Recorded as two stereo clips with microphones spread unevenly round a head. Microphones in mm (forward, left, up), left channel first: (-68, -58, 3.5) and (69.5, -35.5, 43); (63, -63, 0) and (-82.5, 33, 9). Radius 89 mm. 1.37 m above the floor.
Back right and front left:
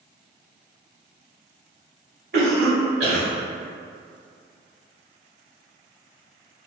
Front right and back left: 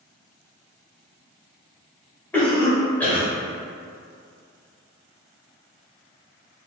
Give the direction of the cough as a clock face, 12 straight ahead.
10 o'clock.